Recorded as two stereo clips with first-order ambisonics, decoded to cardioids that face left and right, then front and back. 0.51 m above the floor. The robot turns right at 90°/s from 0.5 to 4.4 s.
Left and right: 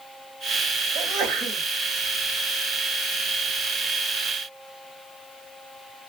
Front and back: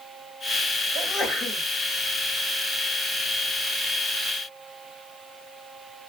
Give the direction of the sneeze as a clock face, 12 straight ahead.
4 o'clock.